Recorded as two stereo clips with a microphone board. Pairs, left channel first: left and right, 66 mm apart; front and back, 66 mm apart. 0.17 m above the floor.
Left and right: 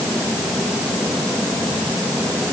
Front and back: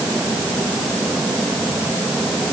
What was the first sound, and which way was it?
Only background noise.